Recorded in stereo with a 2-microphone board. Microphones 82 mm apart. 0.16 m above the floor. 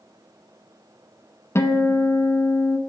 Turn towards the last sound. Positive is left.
turn(degrees=35)  # may be behind; listen again after turning